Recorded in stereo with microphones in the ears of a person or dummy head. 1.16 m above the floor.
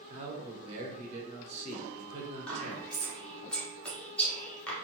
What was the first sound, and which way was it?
A man speaking, 35° right (ahead or behind).